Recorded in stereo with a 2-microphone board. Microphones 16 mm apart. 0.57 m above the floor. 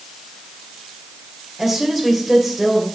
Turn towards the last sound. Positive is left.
turn(degrees=0)  # may be behind; listen again after turning